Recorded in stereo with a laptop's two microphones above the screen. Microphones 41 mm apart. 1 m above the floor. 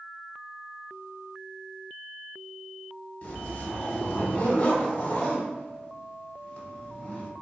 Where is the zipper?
40° left (ahead or behind), 1.0 m.